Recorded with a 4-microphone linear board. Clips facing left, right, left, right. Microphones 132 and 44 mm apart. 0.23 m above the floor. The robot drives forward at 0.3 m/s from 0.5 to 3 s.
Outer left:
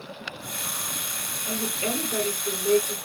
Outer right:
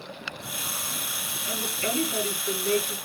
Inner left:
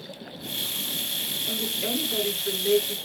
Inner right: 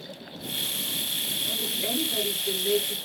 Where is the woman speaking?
40° left (ahead or behind), 2.5 m; by 3.0 s 35° left (ahead or behind), 3 m.